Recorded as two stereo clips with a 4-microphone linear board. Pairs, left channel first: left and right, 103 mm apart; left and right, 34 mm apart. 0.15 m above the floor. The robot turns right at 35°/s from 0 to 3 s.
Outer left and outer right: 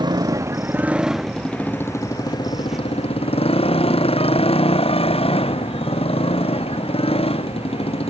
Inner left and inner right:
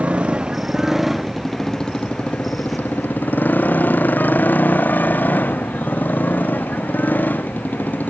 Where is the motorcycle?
45° right; by 8.1 s 60° left.